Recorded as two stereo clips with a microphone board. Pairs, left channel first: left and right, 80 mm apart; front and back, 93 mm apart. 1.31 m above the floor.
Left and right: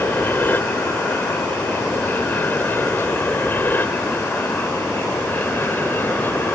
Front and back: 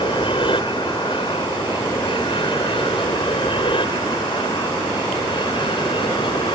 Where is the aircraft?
25° left.